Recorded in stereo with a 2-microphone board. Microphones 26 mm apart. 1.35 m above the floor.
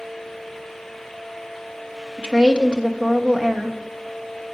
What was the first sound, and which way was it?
A woman speaking, 35° right (ahead or behind).